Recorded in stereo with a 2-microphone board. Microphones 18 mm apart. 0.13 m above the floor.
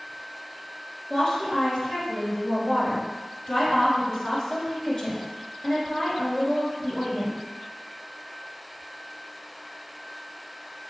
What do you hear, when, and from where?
1.1 s a woman speaking: 45° left (ahead or behind), 1.5 m